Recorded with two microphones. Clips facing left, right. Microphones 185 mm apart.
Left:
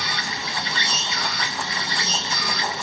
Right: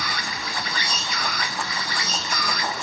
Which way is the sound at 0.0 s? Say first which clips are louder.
Even; 25° left (ahead or behind).